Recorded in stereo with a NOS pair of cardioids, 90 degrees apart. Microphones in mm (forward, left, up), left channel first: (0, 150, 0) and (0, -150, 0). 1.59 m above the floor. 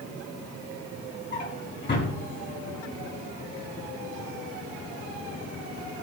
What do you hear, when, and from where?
1.3 s a drawer: 35° left, 7.5 m